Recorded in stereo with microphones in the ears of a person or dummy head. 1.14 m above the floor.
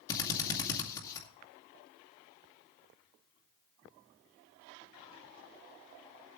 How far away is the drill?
About 2 m.